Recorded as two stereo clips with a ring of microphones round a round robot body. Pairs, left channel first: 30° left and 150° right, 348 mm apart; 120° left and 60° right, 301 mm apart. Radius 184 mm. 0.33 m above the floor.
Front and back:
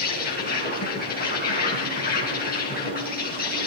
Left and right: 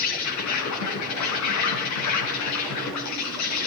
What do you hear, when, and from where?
0.0 s an insect: 95° left, 4 m